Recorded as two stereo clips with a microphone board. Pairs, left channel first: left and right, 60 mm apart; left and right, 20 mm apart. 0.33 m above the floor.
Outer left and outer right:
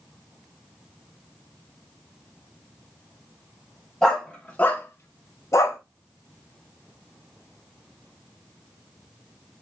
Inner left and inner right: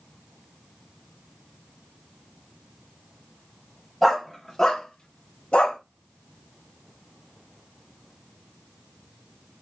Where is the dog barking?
10° left (ahead or behind), 1.0 m; by 5.8 s 45° left (ahead or behind), 0.8 m.